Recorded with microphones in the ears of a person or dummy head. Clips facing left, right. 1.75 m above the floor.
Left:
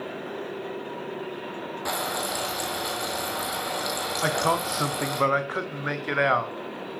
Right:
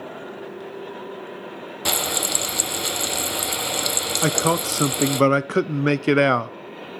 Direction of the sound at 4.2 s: 45° right (ahead or behind).